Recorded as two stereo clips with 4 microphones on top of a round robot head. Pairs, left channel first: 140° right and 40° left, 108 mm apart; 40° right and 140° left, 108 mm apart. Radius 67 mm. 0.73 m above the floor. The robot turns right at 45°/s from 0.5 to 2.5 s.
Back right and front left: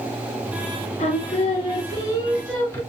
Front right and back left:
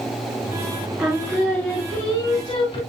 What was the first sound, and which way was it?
Singing, 135° right.